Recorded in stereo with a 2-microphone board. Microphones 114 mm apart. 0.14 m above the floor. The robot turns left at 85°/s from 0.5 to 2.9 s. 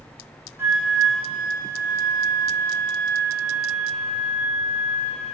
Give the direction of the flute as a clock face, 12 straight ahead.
5 o'clock.